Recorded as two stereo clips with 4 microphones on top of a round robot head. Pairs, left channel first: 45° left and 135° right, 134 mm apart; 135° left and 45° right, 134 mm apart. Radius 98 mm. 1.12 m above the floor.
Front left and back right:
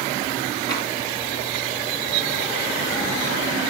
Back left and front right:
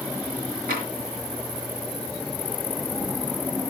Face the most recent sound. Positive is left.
turn(degrees=-20)